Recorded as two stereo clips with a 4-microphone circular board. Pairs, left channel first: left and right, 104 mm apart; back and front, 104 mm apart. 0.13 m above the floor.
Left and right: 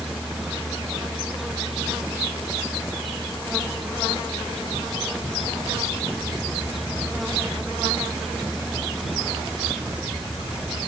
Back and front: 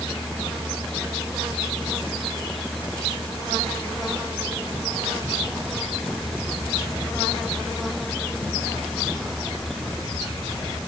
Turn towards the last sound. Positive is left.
No sound to turn to.